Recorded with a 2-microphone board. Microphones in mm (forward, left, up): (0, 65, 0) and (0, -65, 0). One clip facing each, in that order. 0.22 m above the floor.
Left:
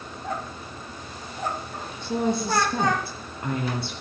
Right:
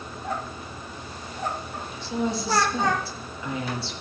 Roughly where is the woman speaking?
Left.